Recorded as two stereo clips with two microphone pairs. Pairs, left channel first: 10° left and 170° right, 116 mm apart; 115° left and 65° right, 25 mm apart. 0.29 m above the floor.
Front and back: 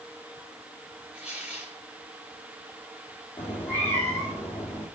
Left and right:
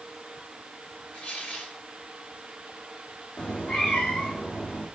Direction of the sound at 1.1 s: 110° left.